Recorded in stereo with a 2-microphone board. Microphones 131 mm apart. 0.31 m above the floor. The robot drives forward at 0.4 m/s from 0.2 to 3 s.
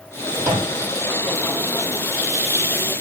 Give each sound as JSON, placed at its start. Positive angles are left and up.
{"t": 0.4, "sound": "a microwave", "side_deg": -15, "distance_m": 7.0}